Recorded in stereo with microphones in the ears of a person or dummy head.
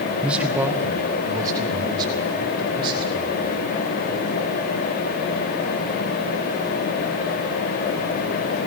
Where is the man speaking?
10° right (ahead or behind), 1.6 m; by 3.6 s 30° right (ahead or behind), 5.5 m.